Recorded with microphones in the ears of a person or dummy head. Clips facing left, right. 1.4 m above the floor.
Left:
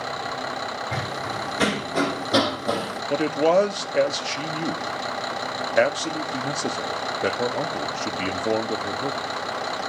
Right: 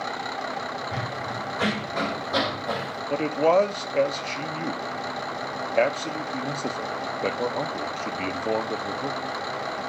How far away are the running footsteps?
About 4 m.